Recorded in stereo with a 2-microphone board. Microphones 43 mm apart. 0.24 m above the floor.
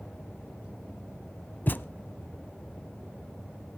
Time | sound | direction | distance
1.7 | a thud | 50° left (ahead or behind) | 0.5 m